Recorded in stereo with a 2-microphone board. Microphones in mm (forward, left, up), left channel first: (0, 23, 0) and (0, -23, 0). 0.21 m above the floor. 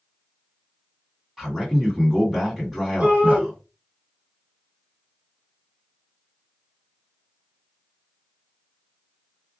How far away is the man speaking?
About 1.9 m.